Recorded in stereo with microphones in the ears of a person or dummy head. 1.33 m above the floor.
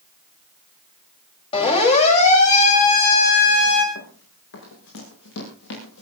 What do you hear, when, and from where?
1.5 s a siren: 30° left (ahead or behind), 5.5 m; by 3.9 s 60° left (ahead or behind), 4.5 m
4.0 s running footsteps: 75° left (ahead or behind), 5.5 m; by 6.0 s 80° left, 7.5 m